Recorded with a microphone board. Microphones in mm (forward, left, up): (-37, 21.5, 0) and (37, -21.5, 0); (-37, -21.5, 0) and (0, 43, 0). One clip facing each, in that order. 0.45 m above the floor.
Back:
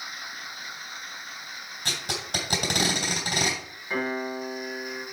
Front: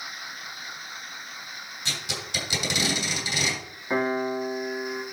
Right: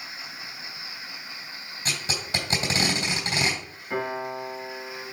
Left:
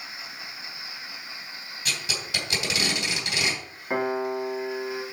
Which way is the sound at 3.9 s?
25° left.